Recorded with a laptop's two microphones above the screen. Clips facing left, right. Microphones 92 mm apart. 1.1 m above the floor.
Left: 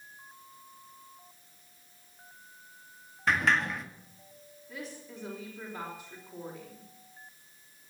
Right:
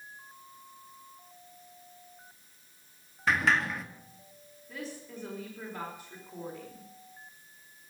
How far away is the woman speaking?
About 4 m.